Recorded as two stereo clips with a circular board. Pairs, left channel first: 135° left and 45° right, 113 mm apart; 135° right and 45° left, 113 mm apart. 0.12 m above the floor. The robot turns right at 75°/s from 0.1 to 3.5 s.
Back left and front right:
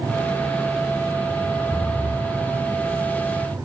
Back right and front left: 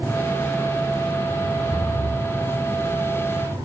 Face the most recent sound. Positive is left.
turn(degrees=-25)